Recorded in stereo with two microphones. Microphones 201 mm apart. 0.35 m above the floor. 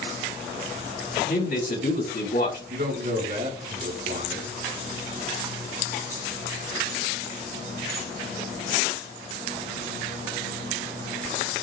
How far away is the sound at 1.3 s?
About 3 m.